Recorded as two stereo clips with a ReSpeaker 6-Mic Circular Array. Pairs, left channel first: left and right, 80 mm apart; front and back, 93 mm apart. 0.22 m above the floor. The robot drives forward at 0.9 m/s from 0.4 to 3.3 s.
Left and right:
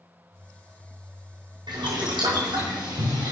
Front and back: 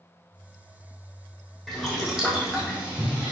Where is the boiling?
90° right, 3.5 m; by 3.3 s 110° right, 4 m.